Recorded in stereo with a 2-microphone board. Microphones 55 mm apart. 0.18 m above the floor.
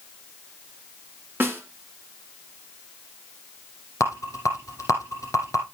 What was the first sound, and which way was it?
A snare drum, 35° right (ahead or behind).